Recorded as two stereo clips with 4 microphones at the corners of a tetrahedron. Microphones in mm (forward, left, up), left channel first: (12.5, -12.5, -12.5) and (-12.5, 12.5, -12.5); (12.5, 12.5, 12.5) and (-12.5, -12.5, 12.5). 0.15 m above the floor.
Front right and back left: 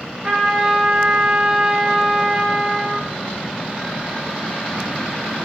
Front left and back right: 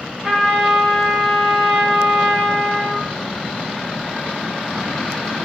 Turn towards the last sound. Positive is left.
turn(degrees=-160)